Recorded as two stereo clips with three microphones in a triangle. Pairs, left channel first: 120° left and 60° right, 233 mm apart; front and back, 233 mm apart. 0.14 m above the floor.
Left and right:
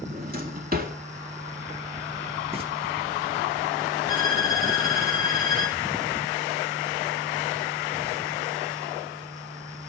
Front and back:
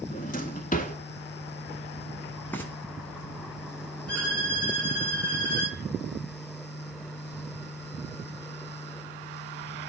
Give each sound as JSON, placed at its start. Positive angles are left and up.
{"t": 0.1, "sound": "a drawer", "azimuth_deg": -35, "distance_m": 0.5}
{"t": 2.5, "sound": "frying", "azimuth_deg": -70, "distance_m": 1.1}
{"t": 4.1, "sound": "a violin", "azimuth_deg": -85, "distance_m": 2.5}